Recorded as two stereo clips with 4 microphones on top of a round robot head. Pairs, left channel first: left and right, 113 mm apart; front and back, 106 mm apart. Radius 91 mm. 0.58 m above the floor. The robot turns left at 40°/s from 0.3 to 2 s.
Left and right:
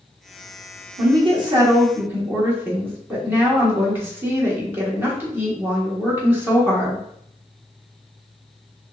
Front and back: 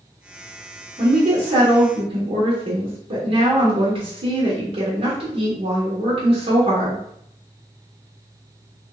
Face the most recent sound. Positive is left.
turn(degrees=-160)